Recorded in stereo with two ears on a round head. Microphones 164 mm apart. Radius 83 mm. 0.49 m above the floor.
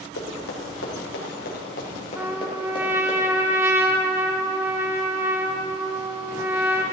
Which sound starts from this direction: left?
Running footsteps, at 0.2 s.